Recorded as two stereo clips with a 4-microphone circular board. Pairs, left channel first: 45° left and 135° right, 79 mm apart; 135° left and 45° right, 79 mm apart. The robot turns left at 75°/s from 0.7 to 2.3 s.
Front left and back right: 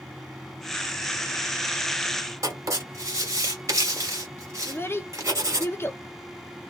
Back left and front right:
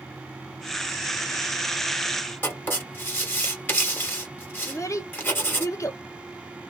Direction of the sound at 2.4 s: 170° right.